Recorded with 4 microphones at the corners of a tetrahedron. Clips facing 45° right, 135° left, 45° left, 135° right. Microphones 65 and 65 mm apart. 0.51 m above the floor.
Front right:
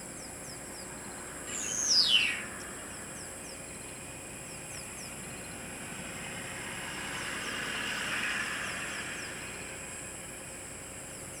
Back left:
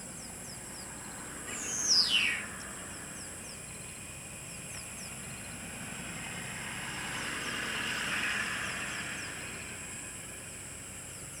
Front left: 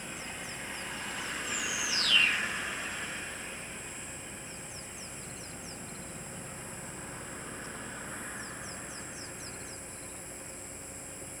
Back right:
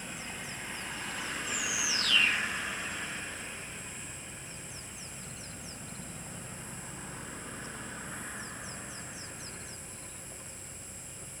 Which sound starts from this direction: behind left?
A bird, at 1.5 s.